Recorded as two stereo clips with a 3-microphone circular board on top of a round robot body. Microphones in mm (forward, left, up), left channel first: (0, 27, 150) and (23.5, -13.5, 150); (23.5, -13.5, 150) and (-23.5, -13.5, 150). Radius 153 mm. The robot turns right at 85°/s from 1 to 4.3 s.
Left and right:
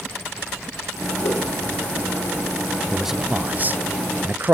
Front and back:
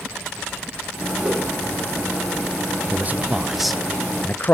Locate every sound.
1.2 s a whoosh: 120° left, 8 m; by 1.4 s 135° left, 8 m
2.9 s a man speaking: 155° right, 0.7 m; by 4.5 s 35° right, 0.7 m